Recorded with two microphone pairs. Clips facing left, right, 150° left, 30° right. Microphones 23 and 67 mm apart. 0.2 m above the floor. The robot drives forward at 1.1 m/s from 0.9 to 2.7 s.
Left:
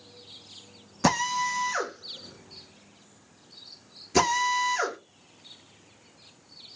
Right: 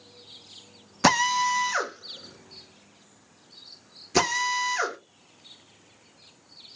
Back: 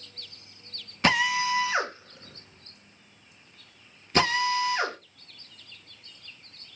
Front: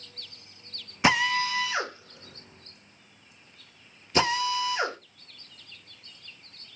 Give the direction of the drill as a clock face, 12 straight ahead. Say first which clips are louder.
Right 4 dB, even; 4 o'clock.